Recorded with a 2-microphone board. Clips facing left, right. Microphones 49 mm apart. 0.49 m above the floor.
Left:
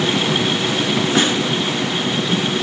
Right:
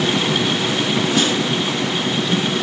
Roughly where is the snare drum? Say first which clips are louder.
Left 2 dB; left.